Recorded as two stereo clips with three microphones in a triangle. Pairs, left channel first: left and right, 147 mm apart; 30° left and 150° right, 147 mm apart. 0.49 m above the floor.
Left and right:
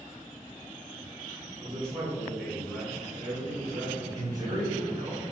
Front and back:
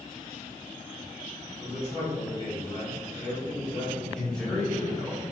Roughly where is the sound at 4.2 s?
Ahead right.